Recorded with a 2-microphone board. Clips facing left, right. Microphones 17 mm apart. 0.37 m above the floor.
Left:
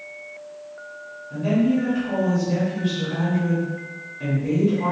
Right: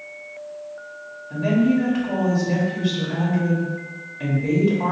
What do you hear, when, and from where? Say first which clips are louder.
1.3 s a woman speaking: right 1 dB; 40° right (ahead or behind), 1.2 m